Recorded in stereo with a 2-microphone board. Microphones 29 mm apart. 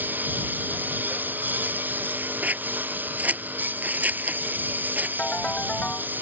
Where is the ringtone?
40° left (ahead or behind).